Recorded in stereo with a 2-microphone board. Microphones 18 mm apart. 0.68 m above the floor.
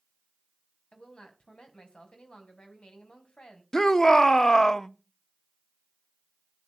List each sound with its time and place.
0.9 s a woman speaking: 75° left (ahead or behind), 4 m
3.7 s a shout: 30° left (ahead or behind), 1.0 m